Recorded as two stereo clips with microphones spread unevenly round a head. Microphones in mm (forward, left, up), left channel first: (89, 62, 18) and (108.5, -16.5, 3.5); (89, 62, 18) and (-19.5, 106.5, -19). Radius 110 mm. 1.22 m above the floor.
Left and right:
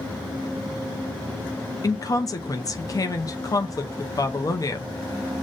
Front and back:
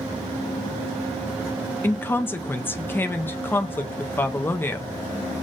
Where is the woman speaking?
65° left, 0.5 m.